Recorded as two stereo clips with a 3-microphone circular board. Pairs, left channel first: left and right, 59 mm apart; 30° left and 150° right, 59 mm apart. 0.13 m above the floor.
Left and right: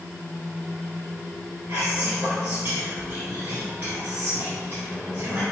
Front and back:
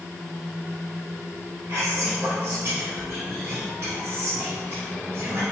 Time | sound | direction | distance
1.7 | whispering | 135° right | 1.9 m